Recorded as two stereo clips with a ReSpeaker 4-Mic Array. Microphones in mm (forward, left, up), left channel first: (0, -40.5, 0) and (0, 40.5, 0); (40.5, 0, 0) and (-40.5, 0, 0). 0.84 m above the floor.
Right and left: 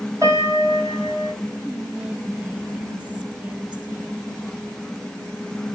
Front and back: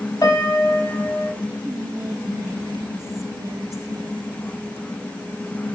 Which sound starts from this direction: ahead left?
A piano, at 0.2 s.